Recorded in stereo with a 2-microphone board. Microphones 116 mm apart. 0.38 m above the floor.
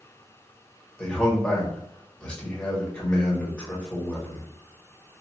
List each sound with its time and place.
1.0 s a man speaking: 10° left (ahead or behind), 1.3 m